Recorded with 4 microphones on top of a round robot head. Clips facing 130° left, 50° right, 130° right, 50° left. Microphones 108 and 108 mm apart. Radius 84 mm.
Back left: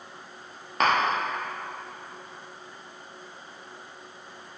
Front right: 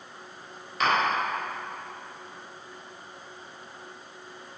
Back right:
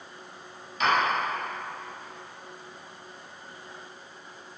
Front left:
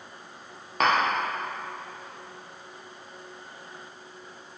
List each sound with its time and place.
0.8 s tapping: 90° left, 1.2 m